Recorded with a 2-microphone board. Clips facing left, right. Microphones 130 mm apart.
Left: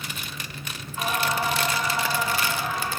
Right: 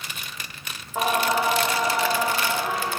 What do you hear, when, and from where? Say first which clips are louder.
0.9 s singing: right 4 dB; 85° right, 2 m